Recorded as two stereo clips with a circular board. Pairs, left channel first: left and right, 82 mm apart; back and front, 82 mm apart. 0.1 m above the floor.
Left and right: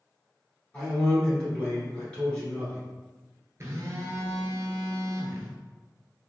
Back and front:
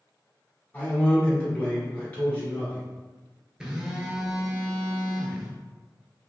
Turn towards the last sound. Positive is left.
turn(degrees=-75)